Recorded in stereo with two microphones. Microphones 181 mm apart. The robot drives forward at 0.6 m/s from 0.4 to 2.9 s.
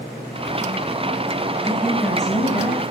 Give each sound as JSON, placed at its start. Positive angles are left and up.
{"t": 1.6, "sound": "a woman speaking", "side_deg": 5, "distance_m": 4.0}